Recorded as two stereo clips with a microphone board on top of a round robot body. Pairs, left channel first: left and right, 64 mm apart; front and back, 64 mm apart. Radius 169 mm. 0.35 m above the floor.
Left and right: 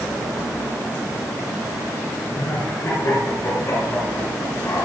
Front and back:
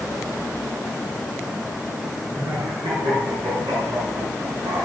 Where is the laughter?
150° left, 5.5 m; by 4.9 s 145° left, 3.5 m.